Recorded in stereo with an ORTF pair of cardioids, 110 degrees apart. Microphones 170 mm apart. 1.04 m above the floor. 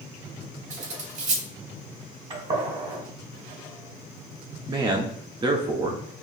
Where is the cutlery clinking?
45° right, 1.3 m.